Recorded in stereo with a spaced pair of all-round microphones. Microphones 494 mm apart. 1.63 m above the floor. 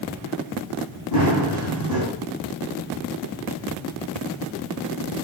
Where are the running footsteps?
45° left (ahead or behind), 5 m.